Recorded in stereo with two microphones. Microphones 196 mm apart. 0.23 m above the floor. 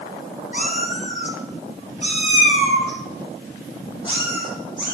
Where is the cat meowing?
45° left (ahead or behind), 2.5 m; by 5.0 s 20° left (ahead or behind), 5 m.